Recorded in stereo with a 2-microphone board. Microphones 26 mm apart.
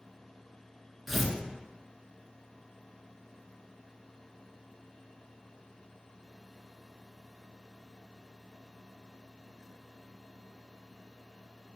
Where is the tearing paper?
5° left (ahead or behind), 0.6 m.